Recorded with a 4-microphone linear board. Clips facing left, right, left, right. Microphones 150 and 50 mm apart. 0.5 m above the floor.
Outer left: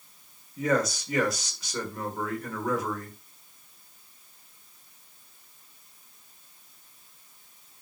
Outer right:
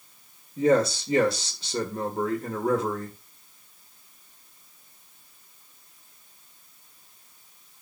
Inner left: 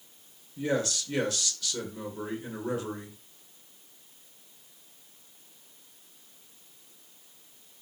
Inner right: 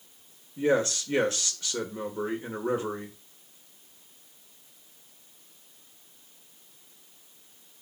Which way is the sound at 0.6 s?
30° right (ahead or behind).